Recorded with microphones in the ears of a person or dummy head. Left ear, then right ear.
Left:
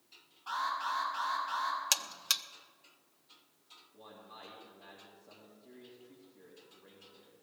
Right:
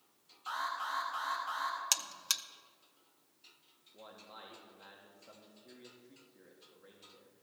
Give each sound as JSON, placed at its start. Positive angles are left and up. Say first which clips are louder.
{"t": 0.5, "sound": "an alarm", "louder": "left 3 dB", "side_deg": -45, "distance_m": 4.5}
{"t": 1.9, "sound": "a buzzer", "louder": "left 2 dB", "side_deg": 5, "distance_m": 0.5}
{"t": 3.9, "sound": "a man speaking", "louder": "right 1 dB", "side_deg": -50, "distance_m": 2.0}